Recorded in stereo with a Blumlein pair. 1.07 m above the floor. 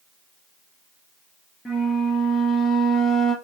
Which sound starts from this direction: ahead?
A flute, at 1.6 s.